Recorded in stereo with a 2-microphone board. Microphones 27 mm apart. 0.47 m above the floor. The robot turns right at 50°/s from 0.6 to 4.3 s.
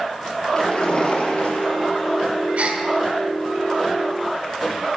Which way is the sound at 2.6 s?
60° right (ahead or behind).